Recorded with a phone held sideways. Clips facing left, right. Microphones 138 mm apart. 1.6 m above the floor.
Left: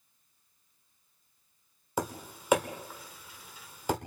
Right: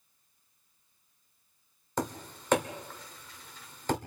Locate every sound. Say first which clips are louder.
2.0 s tapping: even; 10° left (ahead or behind), 1.4 m